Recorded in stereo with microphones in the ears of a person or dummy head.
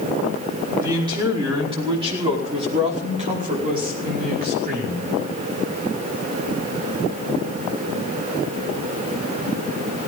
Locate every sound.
0.8 s a man speaking: 20° right (ahead or behind), 5 m; by 5.1 s 55° right (ahead or behind), 5.5 m